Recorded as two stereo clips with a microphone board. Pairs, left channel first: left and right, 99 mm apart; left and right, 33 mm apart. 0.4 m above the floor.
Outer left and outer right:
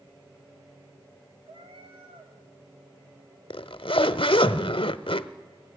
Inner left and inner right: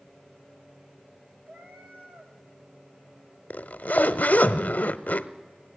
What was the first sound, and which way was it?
A cat meowing, 70° right (ahead or behind).